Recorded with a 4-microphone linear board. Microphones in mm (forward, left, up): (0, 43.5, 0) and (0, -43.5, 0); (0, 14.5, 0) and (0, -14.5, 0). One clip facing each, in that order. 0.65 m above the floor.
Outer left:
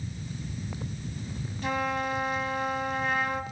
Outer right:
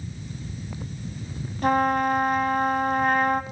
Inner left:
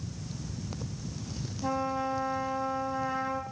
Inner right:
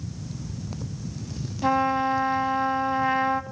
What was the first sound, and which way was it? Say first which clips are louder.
A trumpet: outer right 9 dB, inner right 9 dB; 50° right (ahead or behind).